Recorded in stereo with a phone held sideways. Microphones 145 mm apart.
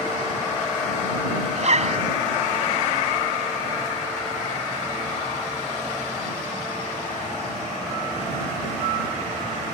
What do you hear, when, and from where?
1.6 s a zipper: 55° right (ahead or behind)